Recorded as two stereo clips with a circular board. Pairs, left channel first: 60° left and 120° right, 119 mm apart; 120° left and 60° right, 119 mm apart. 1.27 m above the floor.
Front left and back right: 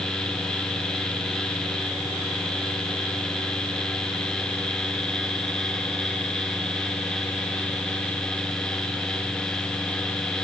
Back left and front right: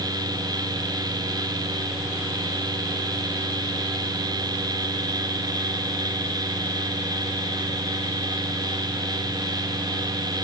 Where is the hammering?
No hammering in this recording.